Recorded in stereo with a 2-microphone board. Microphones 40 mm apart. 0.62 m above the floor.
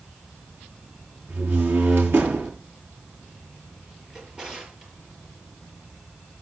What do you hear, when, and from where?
1.3 s a door slam: 65° right (ahead or behind), 8 m
4.1 s a drawer: 20° right (ahead or behind), 5.5 m